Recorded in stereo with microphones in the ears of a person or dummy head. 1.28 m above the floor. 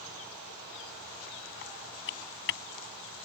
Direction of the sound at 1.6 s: 65° left (ahead or behind).